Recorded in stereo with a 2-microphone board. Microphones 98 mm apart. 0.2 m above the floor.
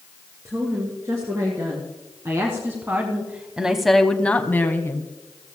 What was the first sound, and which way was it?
A woman speaking, 30° right (ahead or behind).